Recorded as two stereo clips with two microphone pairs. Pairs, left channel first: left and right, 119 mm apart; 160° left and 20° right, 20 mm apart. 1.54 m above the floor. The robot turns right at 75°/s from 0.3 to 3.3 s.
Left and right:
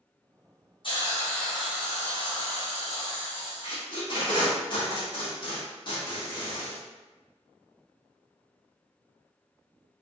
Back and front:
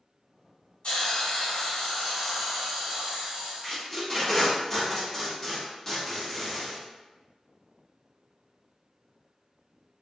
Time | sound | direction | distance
0.8 | a hiss | 125° left | 1.0 m
3.6 | tape being pulled | 85° left | 1.0 m